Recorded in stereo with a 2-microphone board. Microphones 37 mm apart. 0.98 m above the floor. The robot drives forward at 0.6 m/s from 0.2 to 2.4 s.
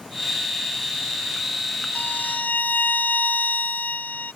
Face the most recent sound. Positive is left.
turn(degrees=50)  # may be behind; listen again after turning